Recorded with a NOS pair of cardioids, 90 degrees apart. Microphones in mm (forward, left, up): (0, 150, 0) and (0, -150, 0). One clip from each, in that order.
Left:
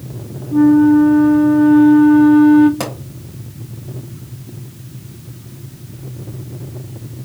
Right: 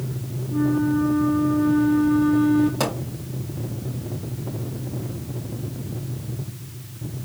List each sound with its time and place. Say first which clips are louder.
0.5 s a flute: left 12 dB; 30° left, 0.5 m
2.8 s a pop: even; 20° left, 4 m